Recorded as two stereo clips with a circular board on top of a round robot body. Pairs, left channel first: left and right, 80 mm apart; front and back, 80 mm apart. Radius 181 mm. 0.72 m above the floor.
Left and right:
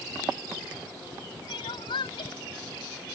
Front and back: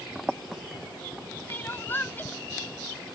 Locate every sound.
1.5 s crying: 70° left